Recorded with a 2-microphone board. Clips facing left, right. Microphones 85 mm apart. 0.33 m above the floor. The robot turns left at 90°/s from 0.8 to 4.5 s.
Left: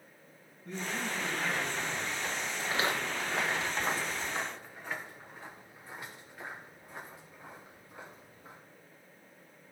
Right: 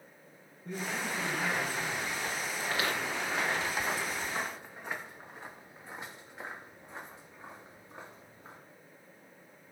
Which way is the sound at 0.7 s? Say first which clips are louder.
Right 1 dB; 15° right.